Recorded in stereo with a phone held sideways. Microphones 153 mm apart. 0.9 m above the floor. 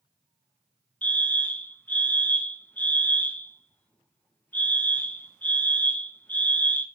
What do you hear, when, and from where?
1.0 s a fire alarm: 10° left (ahead or behind), 1.4 m